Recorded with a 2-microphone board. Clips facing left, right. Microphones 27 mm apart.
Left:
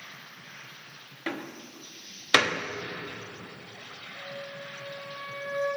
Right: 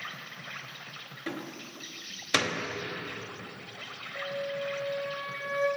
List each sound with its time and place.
0.0 s an insect: 80° right, 2.5 m
1.3 s a door slam: 30° left (ahead or behind), 1.0 m
4.1 s a flute: 45° right (ahead or behind), 4 m